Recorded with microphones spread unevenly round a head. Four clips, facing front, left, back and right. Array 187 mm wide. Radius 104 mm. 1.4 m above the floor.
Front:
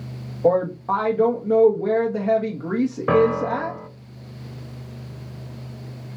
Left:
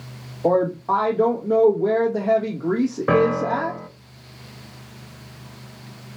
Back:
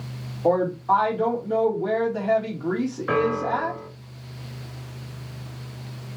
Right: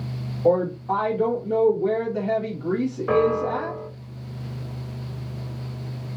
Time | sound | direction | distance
0.4 | a woman speaking | 20° left | 1.7 m
3.1 | a piano | 65° left | 0.9 m